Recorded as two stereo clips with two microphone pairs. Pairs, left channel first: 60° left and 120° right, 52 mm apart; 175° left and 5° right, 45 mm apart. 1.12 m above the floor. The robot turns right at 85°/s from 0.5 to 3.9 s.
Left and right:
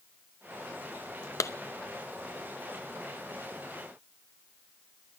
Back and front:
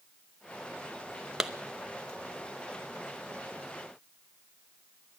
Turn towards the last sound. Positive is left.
turn(degrees=-80)